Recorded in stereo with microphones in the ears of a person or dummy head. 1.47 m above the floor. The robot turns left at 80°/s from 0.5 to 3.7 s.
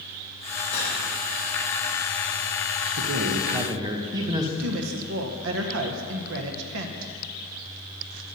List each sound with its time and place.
0.7 s cutlery clinking: 55° left (ahead or behind), 3 m; by 1.0 s 70° left (ahead or behind), 3 m
3.0 s a man speaking: 95° right, 1.1 m; by 4.5 s 155° right, 1.1 m
4.6 s a woman speaking: 70° right (ahead or behind), 1.1 m